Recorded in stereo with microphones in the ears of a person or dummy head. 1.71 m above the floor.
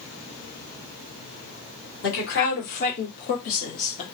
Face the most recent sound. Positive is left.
turn(degrees=35)  # may be behind; listen again after turning